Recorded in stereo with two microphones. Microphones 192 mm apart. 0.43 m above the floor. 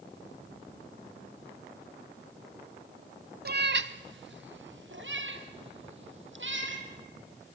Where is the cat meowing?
55° right (ahead or behind), 0.5 m; by 6.8 s 80° right, 3 m.